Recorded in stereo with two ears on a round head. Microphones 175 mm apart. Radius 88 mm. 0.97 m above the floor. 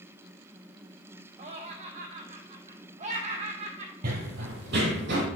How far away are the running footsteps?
About 1.5 m.